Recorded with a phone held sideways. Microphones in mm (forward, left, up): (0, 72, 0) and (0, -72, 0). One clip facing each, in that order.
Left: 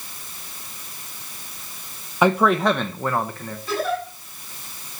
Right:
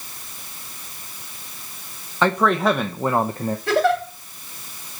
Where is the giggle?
80° right, 4 m.